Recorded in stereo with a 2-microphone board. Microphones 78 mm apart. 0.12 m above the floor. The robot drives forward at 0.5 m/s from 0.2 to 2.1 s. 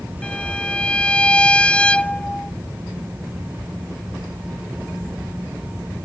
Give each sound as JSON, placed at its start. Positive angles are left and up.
{"t": 0.2, "sound": "a violin", "side_deg": 10}